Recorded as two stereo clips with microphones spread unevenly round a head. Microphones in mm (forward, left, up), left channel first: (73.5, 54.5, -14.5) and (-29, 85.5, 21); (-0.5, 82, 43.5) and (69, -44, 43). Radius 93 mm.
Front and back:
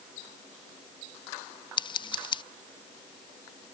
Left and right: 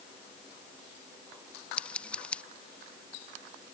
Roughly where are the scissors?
Ahead left.